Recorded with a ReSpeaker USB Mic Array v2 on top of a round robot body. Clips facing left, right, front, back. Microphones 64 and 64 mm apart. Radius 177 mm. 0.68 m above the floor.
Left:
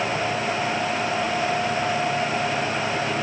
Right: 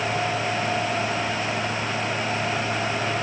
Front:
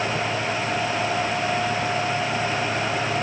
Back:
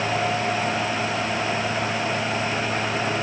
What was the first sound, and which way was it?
Only background noise.